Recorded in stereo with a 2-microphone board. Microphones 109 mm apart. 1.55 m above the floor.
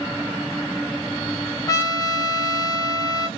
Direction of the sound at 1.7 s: 30° left (ahead or behind).